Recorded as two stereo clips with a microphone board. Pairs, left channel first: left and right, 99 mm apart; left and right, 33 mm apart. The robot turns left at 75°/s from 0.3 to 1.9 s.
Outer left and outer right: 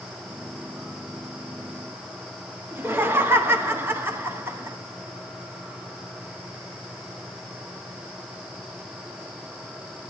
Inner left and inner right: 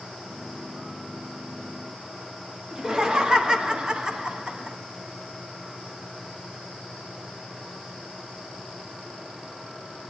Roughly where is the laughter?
Right.